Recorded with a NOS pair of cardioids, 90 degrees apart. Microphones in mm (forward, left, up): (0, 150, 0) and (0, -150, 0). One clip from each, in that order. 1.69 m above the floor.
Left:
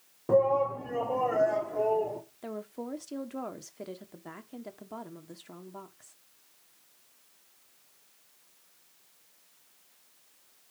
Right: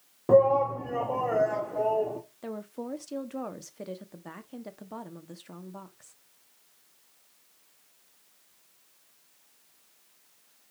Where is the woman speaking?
10° right, 1.5 m.